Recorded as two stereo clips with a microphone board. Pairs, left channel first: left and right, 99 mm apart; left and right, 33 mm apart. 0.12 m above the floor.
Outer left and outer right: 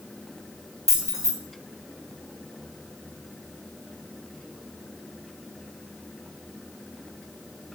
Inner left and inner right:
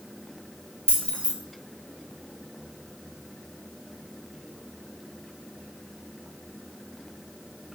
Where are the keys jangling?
30° left (ahead or behind), 1.6 m.